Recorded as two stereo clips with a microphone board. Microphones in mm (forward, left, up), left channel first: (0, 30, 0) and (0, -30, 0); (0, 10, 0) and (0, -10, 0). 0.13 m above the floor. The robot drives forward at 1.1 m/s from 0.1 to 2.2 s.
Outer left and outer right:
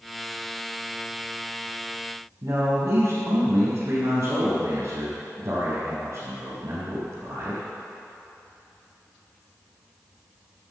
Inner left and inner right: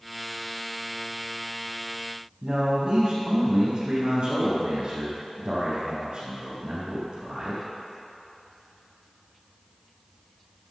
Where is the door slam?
No door slam in this recording.